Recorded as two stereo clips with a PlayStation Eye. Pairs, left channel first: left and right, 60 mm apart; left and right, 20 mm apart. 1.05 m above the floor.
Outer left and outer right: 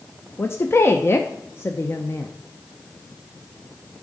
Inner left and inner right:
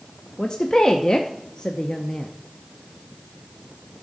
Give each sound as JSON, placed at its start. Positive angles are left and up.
{"t": 0.4, "sound": "a woman speaking", "side_deg": 40, "distance_m": 0.6}